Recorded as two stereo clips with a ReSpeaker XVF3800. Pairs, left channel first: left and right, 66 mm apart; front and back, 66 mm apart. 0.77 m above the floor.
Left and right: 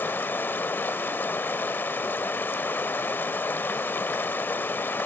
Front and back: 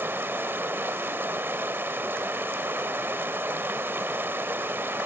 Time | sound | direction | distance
0.0 | running water | 135° left | 0.7 m